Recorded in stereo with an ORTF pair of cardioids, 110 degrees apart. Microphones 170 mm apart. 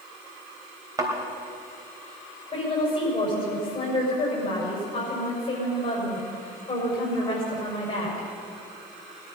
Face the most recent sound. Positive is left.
turn(degrees=35)